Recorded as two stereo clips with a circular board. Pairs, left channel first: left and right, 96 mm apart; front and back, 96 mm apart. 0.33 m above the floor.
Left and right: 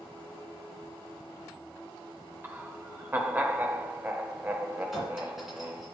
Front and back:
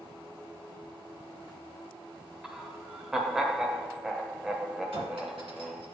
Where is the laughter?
105° right, 0.9 m.